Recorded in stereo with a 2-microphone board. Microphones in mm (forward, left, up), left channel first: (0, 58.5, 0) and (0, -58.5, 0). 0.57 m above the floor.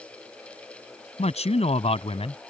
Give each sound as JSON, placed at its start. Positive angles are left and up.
{"t": 1.2, "sound": "a man speaking", "side_deg": 70}